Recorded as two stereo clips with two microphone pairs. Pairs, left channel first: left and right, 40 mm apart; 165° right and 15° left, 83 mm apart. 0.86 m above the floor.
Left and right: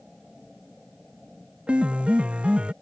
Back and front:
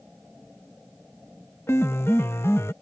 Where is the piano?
130° right.